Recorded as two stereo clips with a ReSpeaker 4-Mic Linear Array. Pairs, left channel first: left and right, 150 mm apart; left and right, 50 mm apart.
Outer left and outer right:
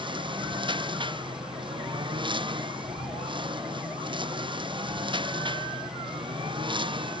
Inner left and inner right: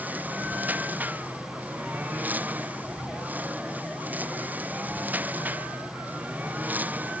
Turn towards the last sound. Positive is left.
turn(degrees=-35)  # may be behind; listen again after turning